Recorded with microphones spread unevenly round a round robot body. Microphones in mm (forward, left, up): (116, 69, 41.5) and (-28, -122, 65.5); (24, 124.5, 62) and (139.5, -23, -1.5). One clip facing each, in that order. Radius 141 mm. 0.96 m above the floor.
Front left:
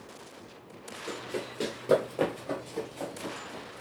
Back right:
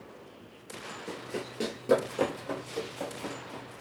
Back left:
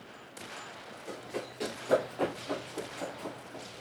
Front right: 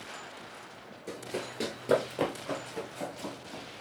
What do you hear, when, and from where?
1.1 s running footsteps: 80° right, 0.9 m; by 3.8 s 50° right, 2 m